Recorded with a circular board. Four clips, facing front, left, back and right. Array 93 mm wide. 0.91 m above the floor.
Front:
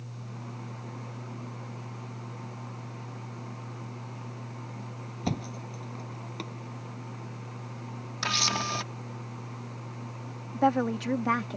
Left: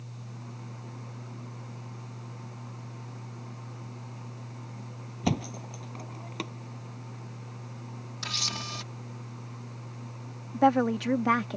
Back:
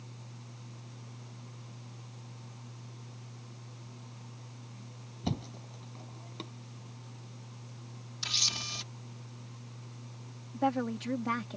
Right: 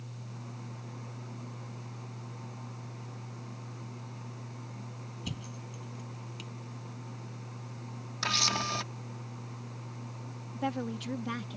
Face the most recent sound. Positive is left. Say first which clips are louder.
# left 12 dB, front 6 dB
turn(degrees=65)